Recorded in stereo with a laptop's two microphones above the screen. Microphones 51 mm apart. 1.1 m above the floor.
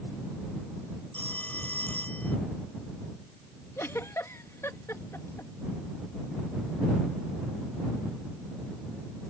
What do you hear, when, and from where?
1.1 s a phone ringing: 30° left (ahead or behind)
3.8 s a giggle: 65° left (ahead or behind)